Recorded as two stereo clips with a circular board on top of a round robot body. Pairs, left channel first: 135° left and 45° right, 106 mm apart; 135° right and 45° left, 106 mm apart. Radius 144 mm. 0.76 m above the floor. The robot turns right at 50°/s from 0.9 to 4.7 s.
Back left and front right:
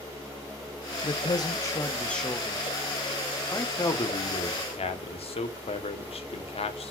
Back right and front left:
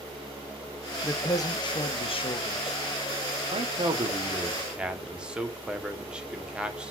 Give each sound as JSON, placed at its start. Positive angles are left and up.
{"t": 1.0, "sound": "a man speaking", "azimuth_deg": 160, "distance_m": 1.5}
{"t": 3.5, "sound": "a man speaking", "azimuth_deg": 65, "distance_m": 1.7}